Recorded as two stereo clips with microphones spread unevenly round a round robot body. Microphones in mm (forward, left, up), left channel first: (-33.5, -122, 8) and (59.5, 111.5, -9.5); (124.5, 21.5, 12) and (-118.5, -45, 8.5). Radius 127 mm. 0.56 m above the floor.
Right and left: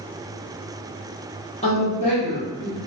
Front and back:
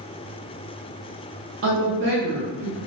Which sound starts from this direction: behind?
A woman speaking, at 1.6 s.